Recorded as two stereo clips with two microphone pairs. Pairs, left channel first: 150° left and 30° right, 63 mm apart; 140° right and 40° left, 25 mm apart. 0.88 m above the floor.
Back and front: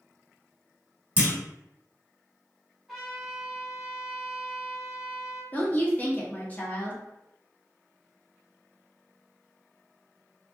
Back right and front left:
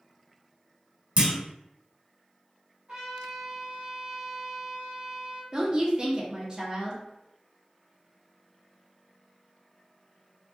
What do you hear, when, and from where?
1.2 s a clunk: 25° left, 1.0 m
2.9 s a trumpet: 55° left, 1.4 m
5.5 s a woman speaking: 85° left, 0.7 m